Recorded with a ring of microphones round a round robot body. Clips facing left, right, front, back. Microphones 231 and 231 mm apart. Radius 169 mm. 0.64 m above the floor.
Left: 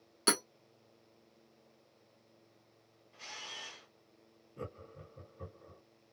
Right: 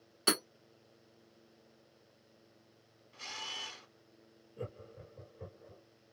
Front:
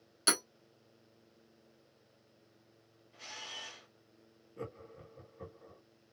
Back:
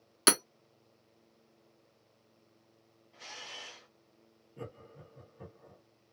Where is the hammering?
165° left, 1.0 m.